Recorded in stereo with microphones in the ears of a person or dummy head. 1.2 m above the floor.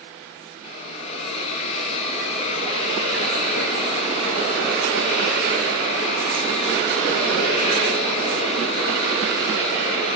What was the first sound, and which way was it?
A hiss, 40° left (ahead or behind).